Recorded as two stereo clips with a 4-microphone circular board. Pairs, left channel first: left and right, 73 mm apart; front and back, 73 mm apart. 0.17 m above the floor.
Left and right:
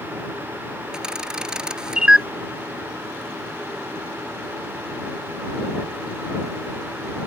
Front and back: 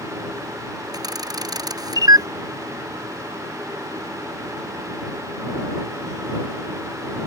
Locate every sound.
0.9 s a camera shutter: 170° right